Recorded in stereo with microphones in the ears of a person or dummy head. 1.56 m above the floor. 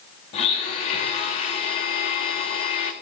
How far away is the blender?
About 1.9 m.